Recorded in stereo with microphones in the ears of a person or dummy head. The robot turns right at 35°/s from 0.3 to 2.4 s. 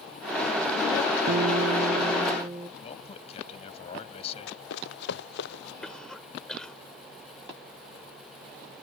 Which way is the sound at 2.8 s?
40° left (ahead or behind).